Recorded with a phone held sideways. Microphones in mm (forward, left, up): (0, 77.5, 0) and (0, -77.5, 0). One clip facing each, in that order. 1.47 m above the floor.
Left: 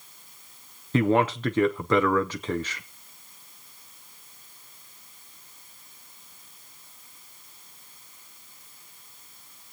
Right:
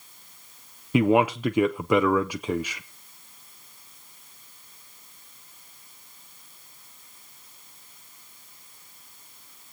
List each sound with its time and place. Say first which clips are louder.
0.9 s a man speaking: right 2 dB; 10° right (ahead or behind), 0.6 m